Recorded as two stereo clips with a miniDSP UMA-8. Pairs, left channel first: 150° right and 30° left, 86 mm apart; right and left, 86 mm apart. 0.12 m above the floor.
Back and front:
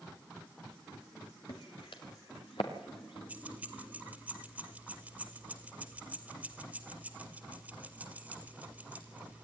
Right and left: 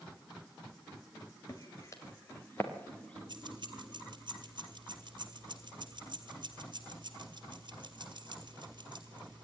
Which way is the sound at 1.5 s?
135° right.